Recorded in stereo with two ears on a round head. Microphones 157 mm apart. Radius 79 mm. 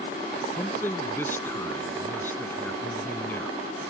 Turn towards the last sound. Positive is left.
turn(degrees=15)  # may be behind; listen again after turning